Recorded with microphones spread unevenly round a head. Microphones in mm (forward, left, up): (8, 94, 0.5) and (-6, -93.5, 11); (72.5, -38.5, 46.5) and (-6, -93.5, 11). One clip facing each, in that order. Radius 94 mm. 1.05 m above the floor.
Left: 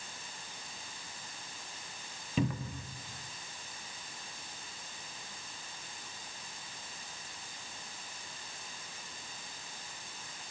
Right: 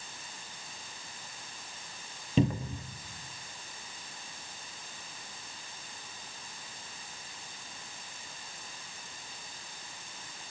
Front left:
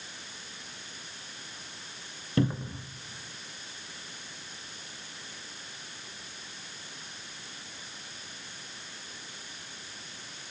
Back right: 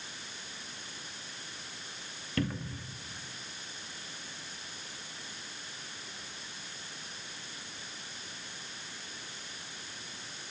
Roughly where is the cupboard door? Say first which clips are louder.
Right 5 dB, front left 6 dB; ahead right.